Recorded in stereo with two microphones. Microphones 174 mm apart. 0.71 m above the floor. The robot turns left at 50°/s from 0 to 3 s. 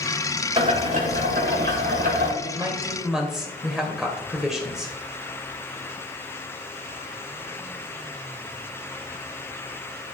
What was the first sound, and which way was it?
Boiling, 30° right.